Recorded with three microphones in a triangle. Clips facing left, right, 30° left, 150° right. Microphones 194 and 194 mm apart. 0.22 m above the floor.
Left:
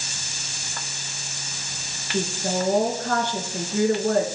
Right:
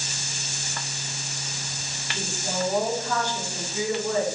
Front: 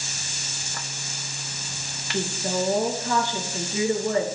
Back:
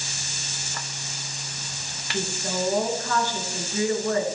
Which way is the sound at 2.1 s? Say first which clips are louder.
Left 7 dB, front 2 dB; 100° left.